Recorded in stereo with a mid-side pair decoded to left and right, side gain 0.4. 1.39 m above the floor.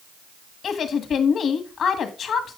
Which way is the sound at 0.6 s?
65° left.